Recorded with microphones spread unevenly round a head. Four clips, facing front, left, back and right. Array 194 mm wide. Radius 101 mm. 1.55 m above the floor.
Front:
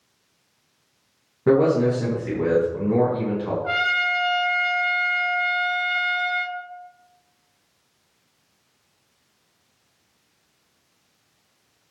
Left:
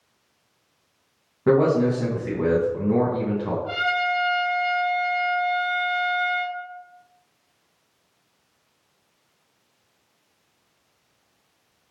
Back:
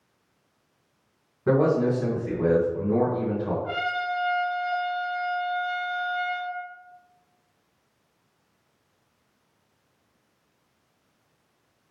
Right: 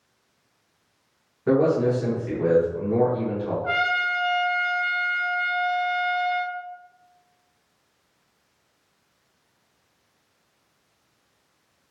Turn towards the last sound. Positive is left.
turn(degrees=-45)